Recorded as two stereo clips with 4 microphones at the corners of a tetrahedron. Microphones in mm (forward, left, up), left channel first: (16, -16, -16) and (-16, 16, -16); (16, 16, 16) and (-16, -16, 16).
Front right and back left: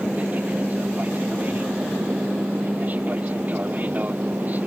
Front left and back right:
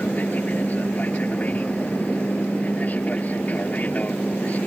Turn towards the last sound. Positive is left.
turn(degrees=90)